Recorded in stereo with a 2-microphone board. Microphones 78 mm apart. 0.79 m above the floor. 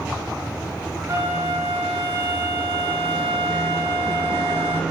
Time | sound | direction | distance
1.1 | a flute | 35° right (ahead or behind) | 4 m